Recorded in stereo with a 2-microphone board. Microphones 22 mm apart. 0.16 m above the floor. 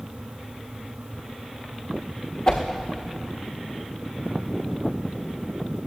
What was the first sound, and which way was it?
A whoosh, 50° left (ahead or behind).